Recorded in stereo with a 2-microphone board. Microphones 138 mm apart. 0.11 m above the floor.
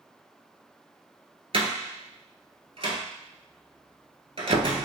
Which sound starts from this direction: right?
A door slam, at 1.5 s.